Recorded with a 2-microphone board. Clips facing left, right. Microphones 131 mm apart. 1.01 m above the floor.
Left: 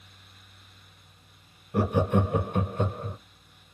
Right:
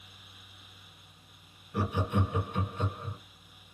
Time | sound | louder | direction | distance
1.7 | laughter | left 7 dB | 50° left (ahead or behind) | 0.7 m